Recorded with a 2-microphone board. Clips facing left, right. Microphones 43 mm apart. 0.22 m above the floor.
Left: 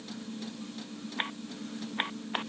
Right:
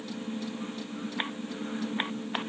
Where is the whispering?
I don't hear whispering.